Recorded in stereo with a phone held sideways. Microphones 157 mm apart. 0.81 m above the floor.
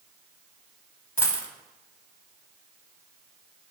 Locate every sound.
1.2 s a dropped coin: 15° left (ahead or behind), 0.8 m